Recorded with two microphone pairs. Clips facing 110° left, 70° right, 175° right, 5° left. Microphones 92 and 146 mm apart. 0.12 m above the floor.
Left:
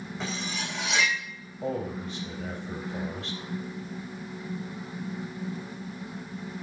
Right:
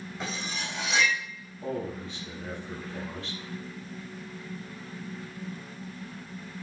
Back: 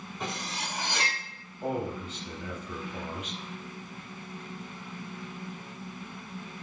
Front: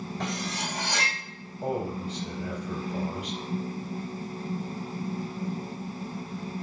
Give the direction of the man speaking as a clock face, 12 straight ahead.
10 o'clock.